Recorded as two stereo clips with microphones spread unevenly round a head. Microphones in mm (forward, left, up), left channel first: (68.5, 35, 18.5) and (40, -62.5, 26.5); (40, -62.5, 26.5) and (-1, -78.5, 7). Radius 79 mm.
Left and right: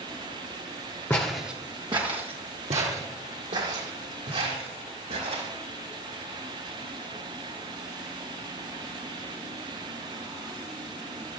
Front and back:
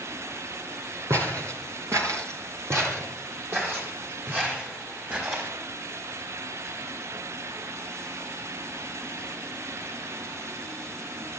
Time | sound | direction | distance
1.1 | footsteps | 145° left | 1.2 m